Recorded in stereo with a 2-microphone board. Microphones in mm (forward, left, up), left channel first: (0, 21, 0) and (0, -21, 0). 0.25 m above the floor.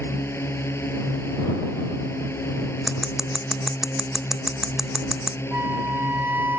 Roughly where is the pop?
No pop in this recording.